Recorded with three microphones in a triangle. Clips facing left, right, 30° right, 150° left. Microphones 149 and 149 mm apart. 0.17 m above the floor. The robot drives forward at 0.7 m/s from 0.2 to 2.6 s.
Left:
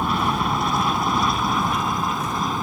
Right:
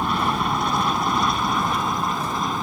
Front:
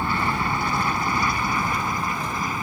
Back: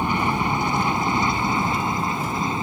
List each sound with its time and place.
0.0 s an aircraft: straight behind